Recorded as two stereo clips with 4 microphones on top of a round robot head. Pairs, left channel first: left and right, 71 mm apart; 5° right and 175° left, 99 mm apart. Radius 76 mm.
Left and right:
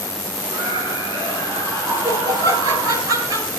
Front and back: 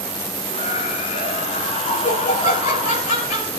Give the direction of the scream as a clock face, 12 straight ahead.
2 o'clock.